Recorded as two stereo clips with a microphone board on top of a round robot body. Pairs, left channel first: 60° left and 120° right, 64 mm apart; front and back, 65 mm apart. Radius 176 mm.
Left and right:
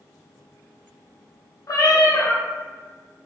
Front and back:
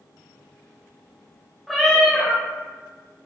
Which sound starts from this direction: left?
A cat meowing, at 1.7 s.